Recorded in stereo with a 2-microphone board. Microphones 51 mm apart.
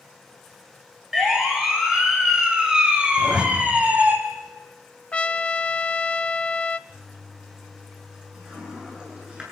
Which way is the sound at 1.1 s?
5° right (ahead or behind).